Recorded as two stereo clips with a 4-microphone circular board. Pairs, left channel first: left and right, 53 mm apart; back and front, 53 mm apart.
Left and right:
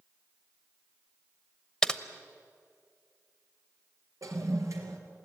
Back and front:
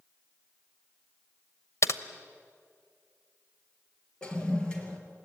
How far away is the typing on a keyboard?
About 0.8 m.